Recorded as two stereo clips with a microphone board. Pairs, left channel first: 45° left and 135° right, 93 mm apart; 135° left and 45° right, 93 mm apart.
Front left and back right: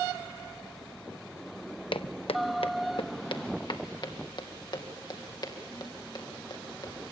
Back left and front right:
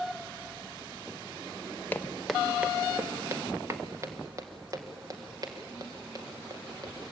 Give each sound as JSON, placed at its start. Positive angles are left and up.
{"t": 1.9, "sound": "footsteps", "azimuth_deg": 65, "distance_m": 0.5}